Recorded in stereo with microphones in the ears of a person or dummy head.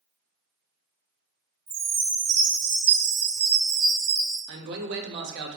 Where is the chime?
70° right (ahead or behind), 0.8 m.